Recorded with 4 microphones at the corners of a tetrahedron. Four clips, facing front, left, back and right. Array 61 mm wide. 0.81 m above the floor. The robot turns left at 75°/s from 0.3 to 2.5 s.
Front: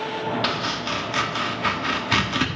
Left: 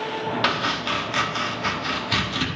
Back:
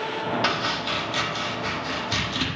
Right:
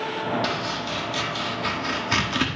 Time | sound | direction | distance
0.4 | chopping | 100° left | 1.6 m